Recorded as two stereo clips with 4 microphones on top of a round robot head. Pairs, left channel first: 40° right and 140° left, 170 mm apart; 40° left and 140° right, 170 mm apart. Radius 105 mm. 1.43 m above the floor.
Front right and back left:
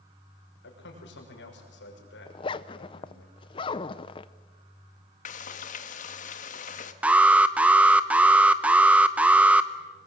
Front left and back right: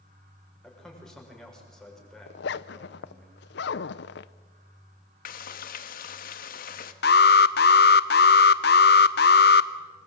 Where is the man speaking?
50° right, 6.5 m.